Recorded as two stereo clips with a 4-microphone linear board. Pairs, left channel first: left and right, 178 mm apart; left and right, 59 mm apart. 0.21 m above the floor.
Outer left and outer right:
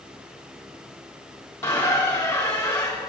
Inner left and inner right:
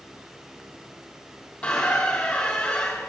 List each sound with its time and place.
1.6 s a squeak: 15° left (ahead or behind), 3 m